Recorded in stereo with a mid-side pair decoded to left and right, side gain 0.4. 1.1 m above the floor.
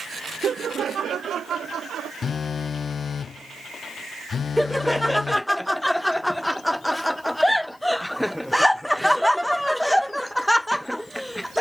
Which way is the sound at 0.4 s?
55° right.